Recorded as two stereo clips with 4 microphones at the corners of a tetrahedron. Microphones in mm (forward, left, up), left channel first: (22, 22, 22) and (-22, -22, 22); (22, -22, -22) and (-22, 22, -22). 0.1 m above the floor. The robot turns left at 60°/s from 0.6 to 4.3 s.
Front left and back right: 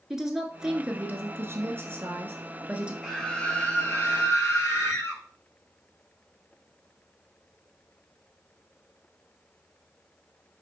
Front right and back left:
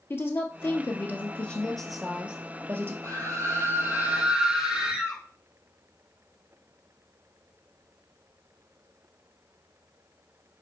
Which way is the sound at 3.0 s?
140° left.